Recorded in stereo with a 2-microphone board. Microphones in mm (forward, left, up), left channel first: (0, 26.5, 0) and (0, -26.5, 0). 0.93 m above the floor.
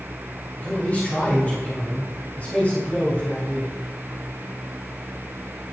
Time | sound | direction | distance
0.6 | a man speaking | 35° left (ahead or behind) | 4 m